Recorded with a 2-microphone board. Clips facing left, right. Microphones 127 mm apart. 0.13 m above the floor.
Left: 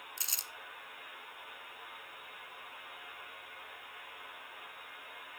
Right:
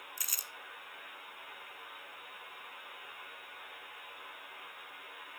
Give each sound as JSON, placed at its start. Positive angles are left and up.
{"t": 0.2, "sound": "crumpling", "side_deg": 25, "distance_m": 0.5}